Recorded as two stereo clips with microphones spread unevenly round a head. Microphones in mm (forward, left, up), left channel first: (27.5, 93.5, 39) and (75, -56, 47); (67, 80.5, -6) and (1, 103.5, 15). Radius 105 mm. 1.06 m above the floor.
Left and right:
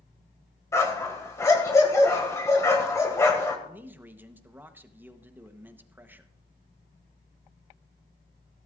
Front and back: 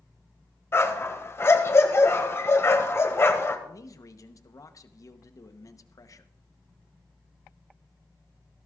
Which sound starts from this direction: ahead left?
A dog barking, at 0.7 s.